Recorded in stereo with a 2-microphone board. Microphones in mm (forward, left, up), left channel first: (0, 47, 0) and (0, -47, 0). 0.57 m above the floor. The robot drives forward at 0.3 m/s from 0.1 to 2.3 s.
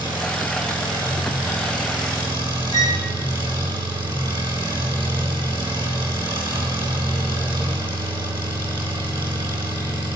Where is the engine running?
50° right (ahead or behind), 5 m; by 10.2 s 55° right (ahead or behind), 5 m.